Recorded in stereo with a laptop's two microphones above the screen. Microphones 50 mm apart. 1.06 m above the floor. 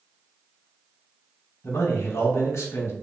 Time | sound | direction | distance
1.6 | a man speaking | 70° left (ahead or behind) | 1.1 m